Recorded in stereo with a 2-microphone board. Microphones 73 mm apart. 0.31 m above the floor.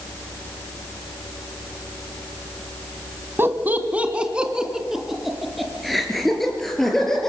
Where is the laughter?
30° right (ahead or behind), 1.7 m; by 7.3 s 5° left (ahead or behind), 5.5 m.